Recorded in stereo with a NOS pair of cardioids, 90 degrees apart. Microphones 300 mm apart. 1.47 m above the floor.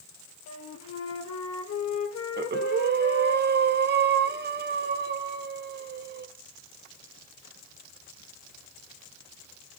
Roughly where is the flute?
Ahead left.